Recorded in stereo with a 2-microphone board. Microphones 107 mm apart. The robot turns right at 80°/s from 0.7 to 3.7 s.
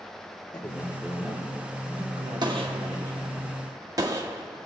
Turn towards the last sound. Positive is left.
turn(degrees=-35)  # may be behind; listen again after turning